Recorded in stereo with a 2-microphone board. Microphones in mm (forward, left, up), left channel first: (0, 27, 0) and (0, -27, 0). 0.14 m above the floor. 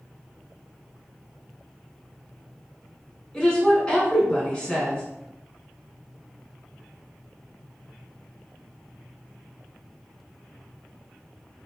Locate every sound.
3.3 s a woman speaking: 15° left (ahead or behind), 1.5 m